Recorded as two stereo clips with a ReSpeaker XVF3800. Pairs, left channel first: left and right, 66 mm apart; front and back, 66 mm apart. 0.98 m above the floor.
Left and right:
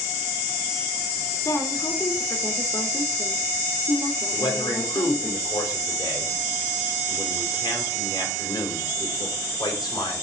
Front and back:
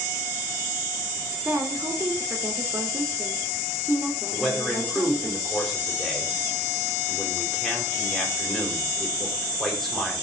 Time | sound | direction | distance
1.4 | a woman speaking | 125° left | 3 m
4.3 | a man speaking | 90° left | 5 m